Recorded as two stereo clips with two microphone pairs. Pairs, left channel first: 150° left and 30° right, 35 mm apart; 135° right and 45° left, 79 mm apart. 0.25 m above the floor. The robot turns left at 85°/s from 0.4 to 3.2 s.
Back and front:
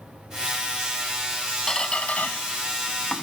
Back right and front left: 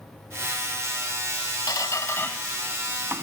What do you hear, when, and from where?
1.7 s a squeak: 140° right; by 3.2 s 90° left